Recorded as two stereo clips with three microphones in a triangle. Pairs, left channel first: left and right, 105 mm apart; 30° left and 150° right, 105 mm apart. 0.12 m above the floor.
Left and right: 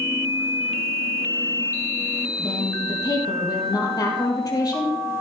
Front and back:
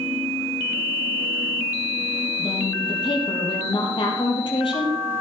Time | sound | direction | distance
2.4 | a woman speaking | 45° left | 4 m